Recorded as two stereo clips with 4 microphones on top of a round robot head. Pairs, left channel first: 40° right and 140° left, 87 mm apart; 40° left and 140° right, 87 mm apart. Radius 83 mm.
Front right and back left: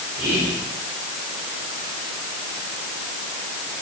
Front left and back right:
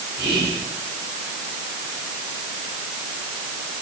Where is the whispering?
175° left, 3 m.